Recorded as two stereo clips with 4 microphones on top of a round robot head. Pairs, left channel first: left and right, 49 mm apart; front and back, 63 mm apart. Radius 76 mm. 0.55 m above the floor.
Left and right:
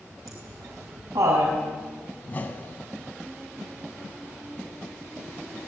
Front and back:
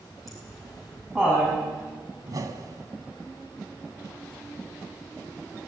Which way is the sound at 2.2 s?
145° left.